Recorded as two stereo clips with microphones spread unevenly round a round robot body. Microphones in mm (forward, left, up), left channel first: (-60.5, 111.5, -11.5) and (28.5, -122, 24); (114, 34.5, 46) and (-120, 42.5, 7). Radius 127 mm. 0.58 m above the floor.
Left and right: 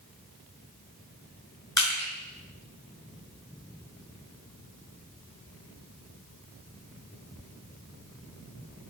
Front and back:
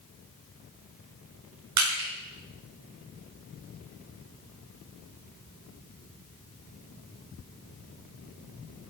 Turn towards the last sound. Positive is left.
turn(degrees=-170)